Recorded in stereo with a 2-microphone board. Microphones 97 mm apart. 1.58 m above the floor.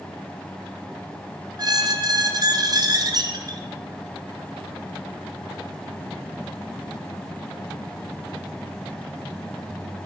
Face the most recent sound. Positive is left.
turn(degrees=-40)  # may be behind; listen again after turning